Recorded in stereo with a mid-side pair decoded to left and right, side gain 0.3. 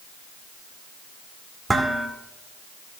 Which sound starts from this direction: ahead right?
Dishes clattering, at 1.7 s.